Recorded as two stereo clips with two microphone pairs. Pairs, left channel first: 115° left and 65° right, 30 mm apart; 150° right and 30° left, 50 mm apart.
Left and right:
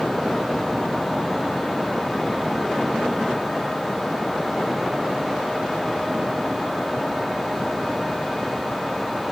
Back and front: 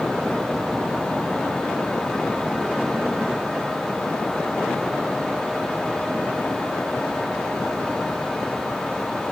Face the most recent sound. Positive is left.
No sound to turn to.